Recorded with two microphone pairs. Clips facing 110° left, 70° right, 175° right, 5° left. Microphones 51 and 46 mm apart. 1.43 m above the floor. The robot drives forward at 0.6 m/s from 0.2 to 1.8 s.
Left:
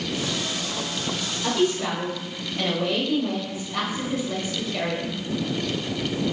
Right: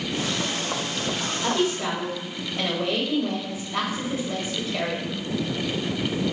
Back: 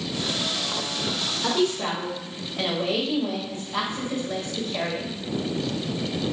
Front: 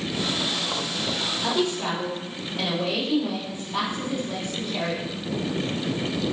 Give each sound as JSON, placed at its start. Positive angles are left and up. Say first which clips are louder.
{"t": 1.4, "sound": "a woman speaking", "louder": "left 2 dB, back 2 dB", "azimuth_deg": -140, "distance_m": 1.3}